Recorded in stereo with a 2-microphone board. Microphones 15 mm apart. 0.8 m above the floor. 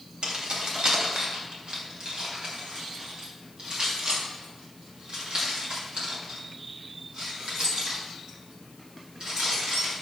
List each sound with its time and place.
0.2 s keys jangling: 80° right, 3 m; by 9.9 s 65° right (ahead or behind), 7.5 m